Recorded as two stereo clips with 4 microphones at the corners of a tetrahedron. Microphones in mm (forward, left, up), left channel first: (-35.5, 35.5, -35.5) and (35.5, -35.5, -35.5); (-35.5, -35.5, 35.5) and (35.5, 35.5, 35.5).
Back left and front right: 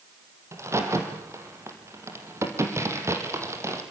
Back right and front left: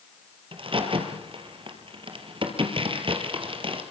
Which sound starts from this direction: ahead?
A crack, at 0.5 s.